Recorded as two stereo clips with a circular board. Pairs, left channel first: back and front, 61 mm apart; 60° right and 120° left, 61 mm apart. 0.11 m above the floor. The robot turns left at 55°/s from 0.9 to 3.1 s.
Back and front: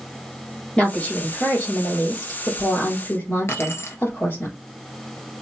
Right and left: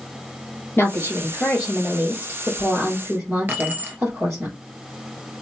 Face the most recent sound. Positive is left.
turn(degrees=160)